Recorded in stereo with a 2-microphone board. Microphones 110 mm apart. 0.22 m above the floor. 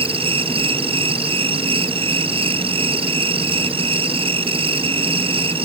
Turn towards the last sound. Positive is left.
turn(degrees=-55)  # may be behind; listen again after turning